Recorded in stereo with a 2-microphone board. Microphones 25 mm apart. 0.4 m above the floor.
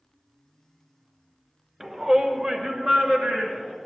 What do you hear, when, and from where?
1.8 s a shout: 20° right (ahead or behind), 0.8 m; by 3.8 s 45° right (ahead or behind), 2.5 m